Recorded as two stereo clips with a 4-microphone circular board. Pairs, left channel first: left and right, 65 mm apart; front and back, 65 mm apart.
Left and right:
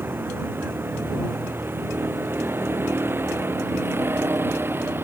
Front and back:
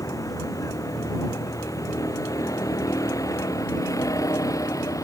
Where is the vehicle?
30° right; by 5.0 s 35° right.